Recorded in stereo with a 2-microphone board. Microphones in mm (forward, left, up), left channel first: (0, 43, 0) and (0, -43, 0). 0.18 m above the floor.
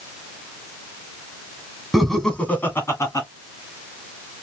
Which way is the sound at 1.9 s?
Centre (ahead or behind).